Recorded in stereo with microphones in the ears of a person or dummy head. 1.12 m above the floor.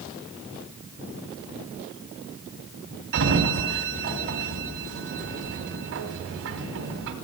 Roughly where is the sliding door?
Right.